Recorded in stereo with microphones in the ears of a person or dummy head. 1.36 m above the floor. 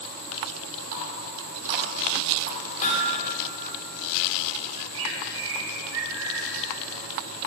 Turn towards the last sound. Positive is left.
turn(degrees=-65)  # may be behind; listen again after turning